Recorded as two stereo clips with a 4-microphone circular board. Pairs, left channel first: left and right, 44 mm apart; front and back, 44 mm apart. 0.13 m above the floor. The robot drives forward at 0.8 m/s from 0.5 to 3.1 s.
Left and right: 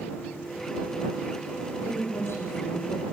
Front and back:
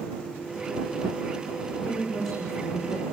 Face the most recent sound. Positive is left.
turn(degrees=85)